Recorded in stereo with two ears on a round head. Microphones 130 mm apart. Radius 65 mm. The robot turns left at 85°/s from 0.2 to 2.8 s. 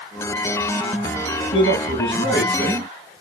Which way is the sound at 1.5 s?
100° left.